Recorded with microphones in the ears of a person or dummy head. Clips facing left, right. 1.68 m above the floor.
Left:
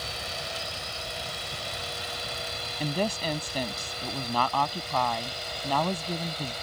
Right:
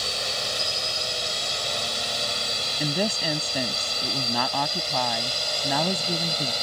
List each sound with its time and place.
0.0 s a drone: 65° right (ahead or behind); by 6.6 s 60° right (ahead or behind)
2.8 s a woman speaking: 10° right (ahead or behind)